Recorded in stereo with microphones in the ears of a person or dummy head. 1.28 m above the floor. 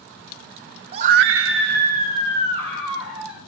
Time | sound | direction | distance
0.9 | a scream | 35° right (ahead or behind) | 0.7 m